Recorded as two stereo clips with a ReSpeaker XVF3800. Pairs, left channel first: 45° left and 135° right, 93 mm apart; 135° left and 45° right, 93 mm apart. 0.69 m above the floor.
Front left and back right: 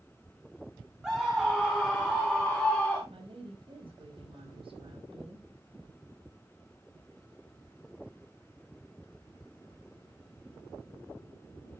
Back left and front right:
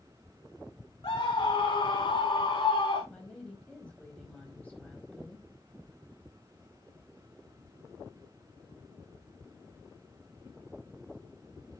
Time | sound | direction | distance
1.0 | a scream | 145° left | 1.6 m
3.1 | a woman speaking | 150° right | 4 m